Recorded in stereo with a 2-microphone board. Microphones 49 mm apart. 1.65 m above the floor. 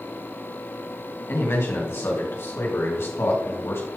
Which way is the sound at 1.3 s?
60° left (ahead or behind).